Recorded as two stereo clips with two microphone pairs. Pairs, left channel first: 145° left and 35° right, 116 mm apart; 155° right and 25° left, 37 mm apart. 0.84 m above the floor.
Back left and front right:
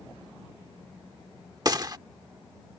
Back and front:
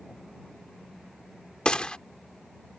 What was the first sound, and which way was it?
A gunshot, 90° right.